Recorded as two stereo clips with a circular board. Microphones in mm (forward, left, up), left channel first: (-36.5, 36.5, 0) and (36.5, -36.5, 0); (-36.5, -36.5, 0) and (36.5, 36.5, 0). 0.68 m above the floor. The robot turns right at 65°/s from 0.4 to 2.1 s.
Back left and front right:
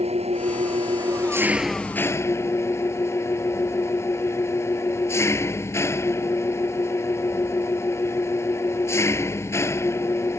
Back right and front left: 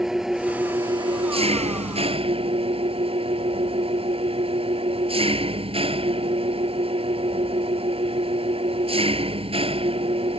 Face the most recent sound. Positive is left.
turn(degrees=70)